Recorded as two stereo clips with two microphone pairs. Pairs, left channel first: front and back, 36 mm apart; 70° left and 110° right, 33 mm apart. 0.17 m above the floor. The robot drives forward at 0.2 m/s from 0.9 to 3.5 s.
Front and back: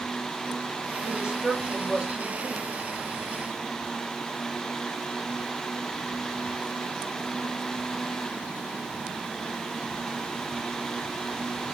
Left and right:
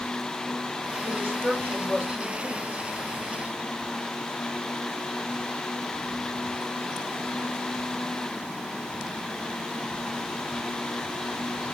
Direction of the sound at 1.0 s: 100° right.